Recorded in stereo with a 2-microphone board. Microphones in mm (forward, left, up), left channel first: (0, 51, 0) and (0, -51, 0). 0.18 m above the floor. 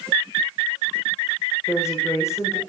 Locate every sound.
1.7 s a woman speaking: 25° left (ahead or behind), 8 m